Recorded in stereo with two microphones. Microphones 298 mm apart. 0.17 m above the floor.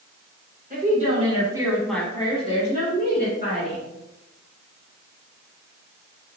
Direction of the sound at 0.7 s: 30° right (ahead or behind).